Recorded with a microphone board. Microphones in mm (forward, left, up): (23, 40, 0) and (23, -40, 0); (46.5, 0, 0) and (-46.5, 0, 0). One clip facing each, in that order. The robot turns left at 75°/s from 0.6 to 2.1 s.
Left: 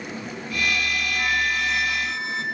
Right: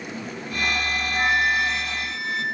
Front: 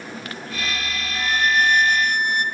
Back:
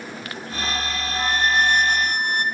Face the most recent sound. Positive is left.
turn(degrees=145)